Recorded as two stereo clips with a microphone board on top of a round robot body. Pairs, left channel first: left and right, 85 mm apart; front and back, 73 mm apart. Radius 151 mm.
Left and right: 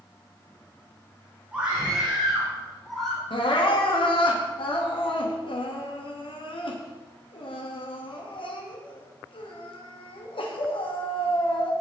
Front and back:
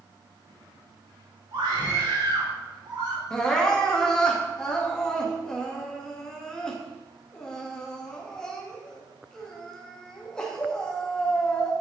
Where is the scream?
165° right, 4 m; by 3.2 s 175° left, 5 m.